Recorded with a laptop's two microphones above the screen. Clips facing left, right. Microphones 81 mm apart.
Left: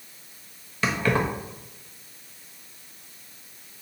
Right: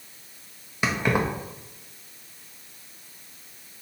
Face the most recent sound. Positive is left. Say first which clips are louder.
# even
turn(degrees=-15)  # may be behind; listen again after turning